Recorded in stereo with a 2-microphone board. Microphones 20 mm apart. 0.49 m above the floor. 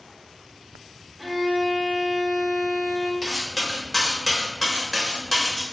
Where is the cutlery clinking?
15° left (ahead or behind), 1.0 m.